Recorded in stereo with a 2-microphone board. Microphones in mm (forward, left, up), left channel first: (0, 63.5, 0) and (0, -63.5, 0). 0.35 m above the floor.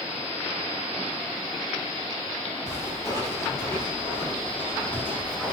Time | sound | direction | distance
2.7 | footsteps | 30° left (ahead or behind) | 6 m